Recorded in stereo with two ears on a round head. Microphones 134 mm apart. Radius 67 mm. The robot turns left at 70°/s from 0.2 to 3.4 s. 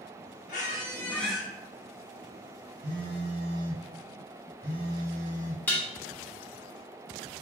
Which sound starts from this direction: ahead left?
A squeak, at 0.5 s.